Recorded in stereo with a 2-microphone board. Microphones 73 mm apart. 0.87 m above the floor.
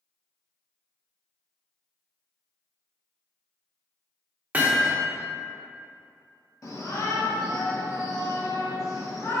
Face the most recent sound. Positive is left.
turn(degrees=50)  # may be behind; listen again after turning